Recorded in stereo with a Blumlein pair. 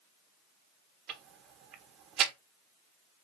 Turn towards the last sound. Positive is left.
turn(degrees=-30)